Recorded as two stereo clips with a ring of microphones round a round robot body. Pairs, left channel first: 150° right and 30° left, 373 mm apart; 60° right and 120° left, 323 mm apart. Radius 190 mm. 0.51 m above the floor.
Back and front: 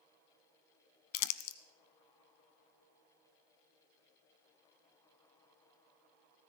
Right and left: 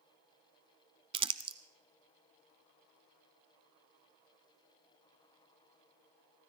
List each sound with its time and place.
1.1 s crumpling: 165° right, 0.8 m